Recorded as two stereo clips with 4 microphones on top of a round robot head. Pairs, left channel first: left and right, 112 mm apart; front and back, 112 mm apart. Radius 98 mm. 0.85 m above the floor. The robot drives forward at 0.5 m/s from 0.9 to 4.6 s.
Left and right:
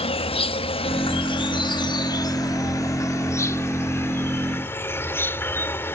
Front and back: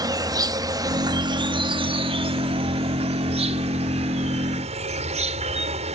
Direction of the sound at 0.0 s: 125° left.